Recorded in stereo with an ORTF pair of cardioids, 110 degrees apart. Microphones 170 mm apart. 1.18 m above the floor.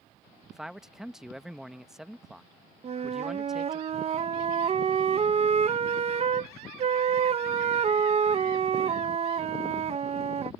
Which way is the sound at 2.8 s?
40° right.